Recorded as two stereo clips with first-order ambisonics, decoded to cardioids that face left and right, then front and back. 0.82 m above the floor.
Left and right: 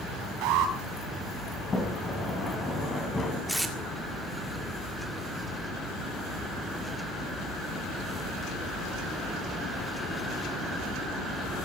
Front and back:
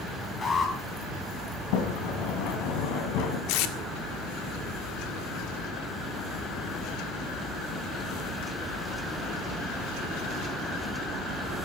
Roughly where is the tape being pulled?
Ahead.